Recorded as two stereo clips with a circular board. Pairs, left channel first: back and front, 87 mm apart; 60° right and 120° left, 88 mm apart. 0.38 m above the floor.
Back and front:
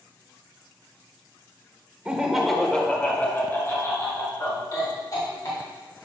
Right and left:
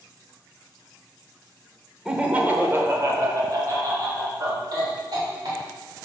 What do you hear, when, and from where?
2.0 s laughter: 55° left, 0.8 m; by 5.6 s 145° left, 2 m